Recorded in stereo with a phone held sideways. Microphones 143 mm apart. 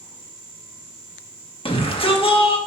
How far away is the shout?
About 2 m.